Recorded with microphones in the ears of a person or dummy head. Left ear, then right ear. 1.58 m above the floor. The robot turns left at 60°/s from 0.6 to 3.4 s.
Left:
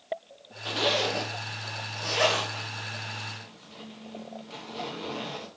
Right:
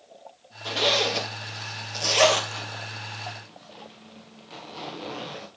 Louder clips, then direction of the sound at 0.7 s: Right 3 dB; 5° right (ahead or behind).